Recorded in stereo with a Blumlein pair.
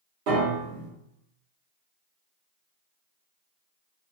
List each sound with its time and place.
0.3 s a piano: 40° right, 1.2 m